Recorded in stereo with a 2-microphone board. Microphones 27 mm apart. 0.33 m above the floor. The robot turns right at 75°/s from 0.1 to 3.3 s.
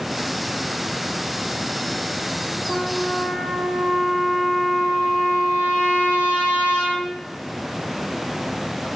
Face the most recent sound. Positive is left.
turn(degrees=-135)